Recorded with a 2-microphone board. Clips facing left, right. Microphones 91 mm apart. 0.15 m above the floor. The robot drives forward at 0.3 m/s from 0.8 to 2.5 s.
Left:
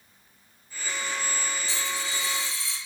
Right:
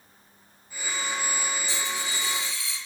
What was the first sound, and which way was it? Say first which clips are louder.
A dropped coin: even; 15° right (ahead or behind).